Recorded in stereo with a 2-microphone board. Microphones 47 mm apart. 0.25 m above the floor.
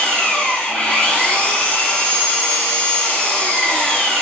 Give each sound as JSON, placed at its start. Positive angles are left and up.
{"t": 0.0, "sound": "an engine running", "side_deg": 20, "distance_m": 1.6}